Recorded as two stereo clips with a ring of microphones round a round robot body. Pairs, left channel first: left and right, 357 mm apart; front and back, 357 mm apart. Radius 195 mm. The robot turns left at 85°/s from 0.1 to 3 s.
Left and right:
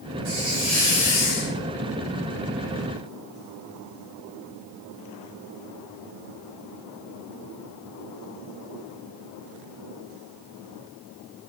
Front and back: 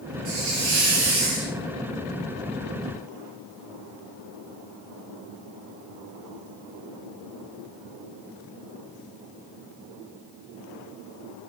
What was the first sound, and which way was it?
A hiss, 140° right.